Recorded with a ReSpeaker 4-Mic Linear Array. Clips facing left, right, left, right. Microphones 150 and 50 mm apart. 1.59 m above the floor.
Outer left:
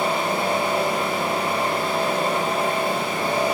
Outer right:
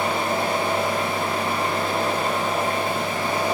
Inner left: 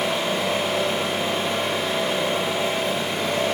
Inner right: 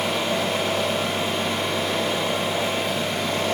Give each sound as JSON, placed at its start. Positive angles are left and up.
{"t": 0.0, "sound": "an engine running", "side_deg": 25, "distance_m": 1.7}